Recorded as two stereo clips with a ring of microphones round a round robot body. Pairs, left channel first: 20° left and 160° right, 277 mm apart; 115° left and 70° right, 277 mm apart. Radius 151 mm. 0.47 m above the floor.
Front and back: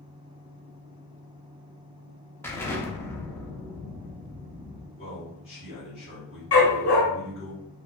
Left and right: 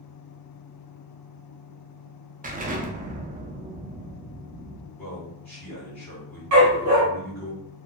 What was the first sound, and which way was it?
An explosion, 50° right.